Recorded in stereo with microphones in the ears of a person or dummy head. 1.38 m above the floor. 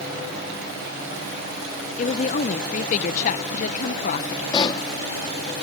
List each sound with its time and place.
2.0 s a woman speaking: 45° left (ahead or behind)
4.5 s a pop: 25° left (ahead or behind)